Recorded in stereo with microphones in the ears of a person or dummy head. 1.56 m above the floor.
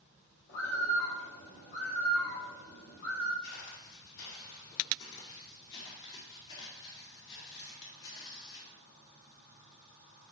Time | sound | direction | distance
0.5 | a bird | 85° left | 4.5 m
3.4 | footsteps | 65° left (ahead or behind) | 4 m